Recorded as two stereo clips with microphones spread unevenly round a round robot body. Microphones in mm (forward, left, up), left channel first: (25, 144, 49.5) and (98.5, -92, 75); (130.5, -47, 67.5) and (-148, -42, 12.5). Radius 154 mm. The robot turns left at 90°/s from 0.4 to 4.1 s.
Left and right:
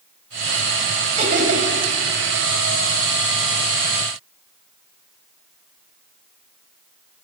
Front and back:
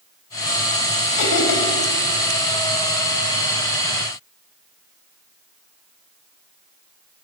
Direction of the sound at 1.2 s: 10° right.